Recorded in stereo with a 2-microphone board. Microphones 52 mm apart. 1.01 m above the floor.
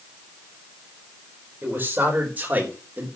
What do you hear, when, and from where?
1.6 s a man speaking: 35° right (ahead or behind), 4.5 m; by 3.1 s 30° right (ahead or behind), 3 m